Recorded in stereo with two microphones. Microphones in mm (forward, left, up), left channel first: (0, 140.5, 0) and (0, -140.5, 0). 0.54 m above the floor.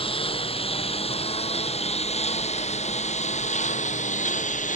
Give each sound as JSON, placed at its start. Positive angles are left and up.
{"t": 0.0, "sound": "a lawn mower", "side_deg": 20}